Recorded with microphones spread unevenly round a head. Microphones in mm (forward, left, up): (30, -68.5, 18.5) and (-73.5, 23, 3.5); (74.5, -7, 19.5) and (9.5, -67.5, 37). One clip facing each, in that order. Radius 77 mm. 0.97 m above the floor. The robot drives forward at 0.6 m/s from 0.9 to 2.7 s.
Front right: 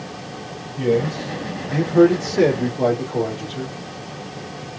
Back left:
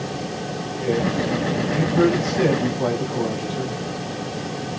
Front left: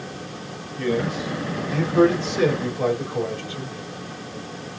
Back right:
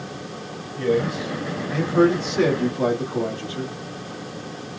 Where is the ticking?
I don't hear ticking.